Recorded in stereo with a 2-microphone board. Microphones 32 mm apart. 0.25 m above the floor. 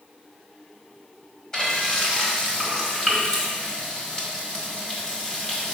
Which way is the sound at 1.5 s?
20° left (ahead or behind).